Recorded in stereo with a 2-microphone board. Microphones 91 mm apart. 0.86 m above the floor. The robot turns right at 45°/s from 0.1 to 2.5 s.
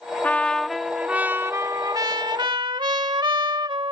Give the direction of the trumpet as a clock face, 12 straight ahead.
7 o'clock.